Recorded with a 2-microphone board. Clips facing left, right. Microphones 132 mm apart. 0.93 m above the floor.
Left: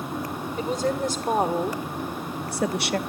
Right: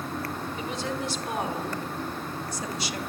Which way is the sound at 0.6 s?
50° left (ahead or behind).